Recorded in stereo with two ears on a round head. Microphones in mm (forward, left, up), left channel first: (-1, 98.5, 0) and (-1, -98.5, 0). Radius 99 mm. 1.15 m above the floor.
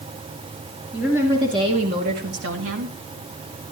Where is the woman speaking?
5° right (ahead or behind), 2.5 m; by 3.0 s 75° right (ahead or behind), 2.5 m.